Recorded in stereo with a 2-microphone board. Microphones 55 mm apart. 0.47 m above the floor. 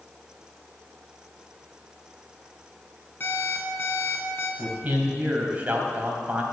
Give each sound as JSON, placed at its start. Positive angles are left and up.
{"t": 3.2, "sound": "an alarm clock", "side_deg": 35, "distance_m": 2.5}
{"t": 4.6, "sound": "a man speaking", "side_deg": -30, "distance_m": 2.5}